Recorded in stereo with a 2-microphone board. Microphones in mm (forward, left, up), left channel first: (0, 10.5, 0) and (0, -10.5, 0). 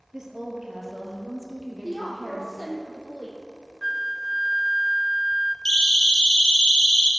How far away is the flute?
About 0.6 m.